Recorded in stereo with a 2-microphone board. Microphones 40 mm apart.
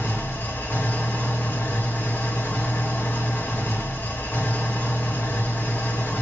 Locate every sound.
0.0 s an engine running: 60° left (ahead or behind), 1.4 m